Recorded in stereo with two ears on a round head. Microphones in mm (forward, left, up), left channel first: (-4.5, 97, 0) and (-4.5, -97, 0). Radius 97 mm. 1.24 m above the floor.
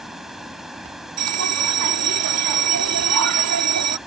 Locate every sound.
0.0 s running water: centre (ahead or behind)
1.2 s a bell: 80° right